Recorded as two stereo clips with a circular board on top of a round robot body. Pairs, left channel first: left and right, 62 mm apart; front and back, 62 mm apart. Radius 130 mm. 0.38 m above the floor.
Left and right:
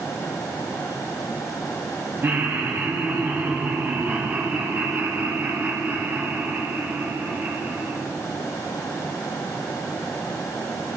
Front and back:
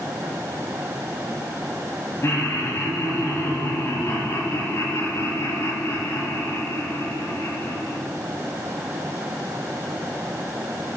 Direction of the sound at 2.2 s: 45° right.